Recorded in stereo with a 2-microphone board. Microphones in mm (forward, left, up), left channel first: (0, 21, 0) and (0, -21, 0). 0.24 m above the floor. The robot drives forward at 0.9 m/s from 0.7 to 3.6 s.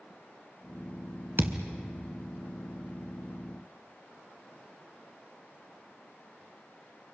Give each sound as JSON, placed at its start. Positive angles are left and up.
{"t": 1.4, "sound": "a thud", "side_deg": -65, "distance_m": 1.2}